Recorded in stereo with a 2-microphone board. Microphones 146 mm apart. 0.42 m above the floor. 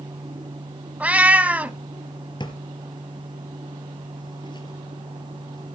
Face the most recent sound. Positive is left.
turn(degrees=30)  # may be behind; listen again after turning